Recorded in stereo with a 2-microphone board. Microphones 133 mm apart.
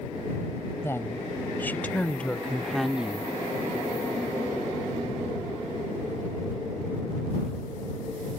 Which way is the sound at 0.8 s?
20° left (ahead or behind).